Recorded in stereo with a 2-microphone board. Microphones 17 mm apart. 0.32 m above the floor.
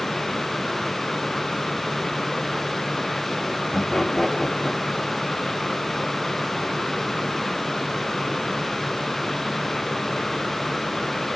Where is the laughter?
25° left (ahead or behind), 1.7 m.